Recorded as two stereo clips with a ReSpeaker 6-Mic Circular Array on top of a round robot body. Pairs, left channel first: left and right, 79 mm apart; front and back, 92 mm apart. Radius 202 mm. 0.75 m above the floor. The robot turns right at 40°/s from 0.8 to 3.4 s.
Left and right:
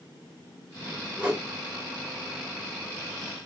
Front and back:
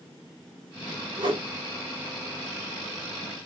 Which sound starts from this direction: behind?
A whoosh, at 1.2 s.